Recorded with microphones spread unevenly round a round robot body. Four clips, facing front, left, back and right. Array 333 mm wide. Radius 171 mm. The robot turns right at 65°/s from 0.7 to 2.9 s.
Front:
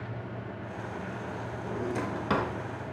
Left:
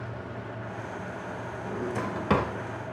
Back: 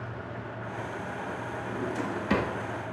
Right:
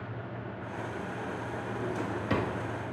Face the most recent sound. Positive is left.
turn(degrees=125)